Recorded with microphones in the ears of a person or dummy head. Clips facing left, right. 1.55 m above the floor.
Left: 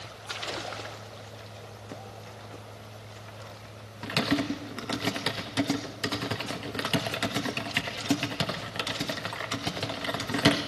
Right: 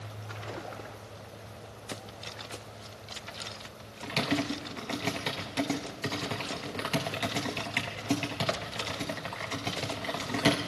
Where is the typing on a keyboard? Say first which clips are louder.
Left 3 dB; 10° left (ahead or behind), 0.9 m.